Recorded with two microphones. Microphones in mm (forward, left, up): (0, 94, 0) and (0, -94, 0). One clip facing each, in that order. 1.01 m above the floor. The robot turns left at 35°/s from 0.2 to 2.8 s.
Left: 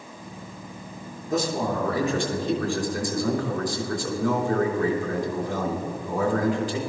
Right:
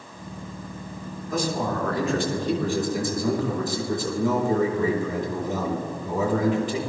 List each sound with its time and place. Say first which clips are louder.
1.3 s a man speaking: left 1 dB; 30° left, 3 m; by 6.8 s 25° right, 3 m